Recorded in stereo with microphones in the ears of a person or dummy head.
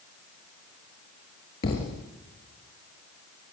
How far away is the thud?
About 1.8 m.